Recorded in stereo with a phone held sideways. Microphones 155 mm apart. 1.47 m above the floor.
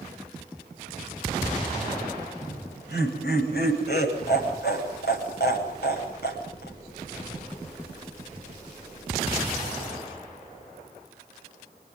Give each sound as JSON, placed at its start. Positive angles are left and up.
{"t": 2.4, "sound": "laughter", "side_deg": 85, "distance_m": 10.0}